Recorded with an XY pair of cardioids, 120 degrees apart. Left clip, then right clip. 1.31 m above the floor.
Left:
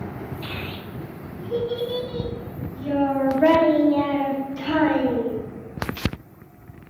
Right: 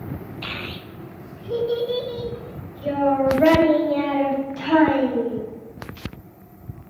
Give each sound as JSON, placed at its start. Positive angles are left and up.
{"t": 0.4, "sound": "a child speaking", "azimuth_deg": -70, "distance_m": 1.4}